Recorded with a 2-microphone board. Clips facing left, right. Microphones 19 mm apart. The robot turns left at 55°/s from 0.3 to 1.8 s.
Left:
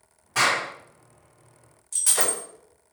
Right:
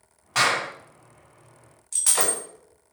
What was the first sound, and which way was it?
A clap, 40° right (ahead or behind).